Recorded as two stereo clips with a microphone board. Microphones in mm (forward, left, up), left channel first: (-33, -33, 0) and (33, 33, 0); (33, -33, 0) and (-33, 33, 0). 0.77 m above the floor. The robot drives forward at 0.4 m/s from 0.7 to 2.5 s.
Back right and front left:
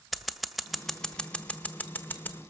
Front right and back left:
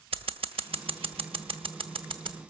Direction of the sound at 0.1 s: 135° left.